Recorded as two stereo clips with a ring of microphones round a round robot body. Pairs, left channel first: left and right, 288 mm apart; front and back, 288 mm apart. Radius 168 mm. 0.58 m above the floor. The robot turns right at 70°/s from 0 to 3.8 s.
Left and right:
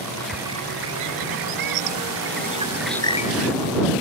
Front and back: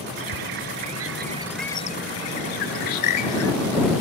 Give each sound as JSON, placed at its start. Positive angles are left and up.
{"t": 0.2, "sound": "a bird", "azimuth_deg": 170}